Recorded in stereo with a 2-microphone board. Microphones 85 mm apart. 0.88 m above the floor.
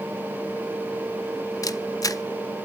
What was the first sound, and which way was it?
A camera shutter, 45° left (ahead or behind).